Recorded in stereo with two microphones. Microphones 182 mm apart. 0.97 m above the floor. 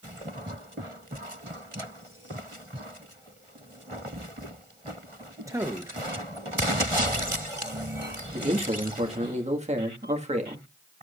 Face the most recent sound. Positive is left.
turn(degrees=-40)  # may be behind; listen again after turning